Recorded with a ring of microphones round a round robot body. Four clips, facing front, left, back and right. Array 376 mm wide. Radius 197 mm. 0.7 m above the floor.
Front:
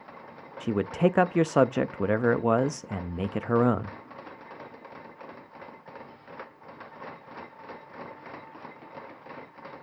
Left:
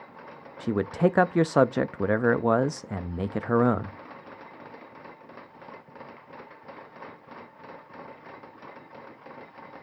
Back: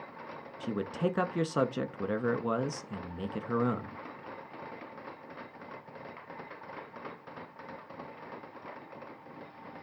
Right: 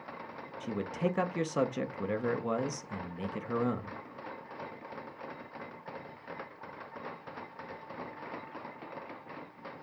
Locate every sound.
0.6 s a man speaking: 55° left, 0.7 m